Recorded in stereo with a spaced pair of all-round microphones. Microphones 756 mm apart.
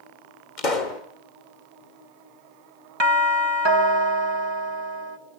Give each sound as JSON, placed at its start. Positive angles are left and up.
{"t": 0.6, "sound": "a pop", "side_deg": 75, "distance_m": 1.8}
{"t": 3.0, "sound": "a doorbell", "side_deg": -35, "distance_m": 1.6}